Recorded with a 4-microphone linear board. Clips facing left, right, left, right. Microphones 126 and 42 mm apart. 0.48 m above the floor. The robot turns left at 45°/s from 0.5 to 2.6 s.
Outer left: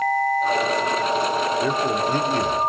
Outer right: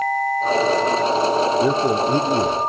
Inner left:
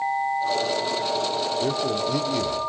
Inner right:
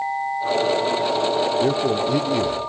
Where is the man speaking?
25° right (ahead or behind), 1.0 m; by 2.6 s 20° right (ahead or behind), 1.0 m.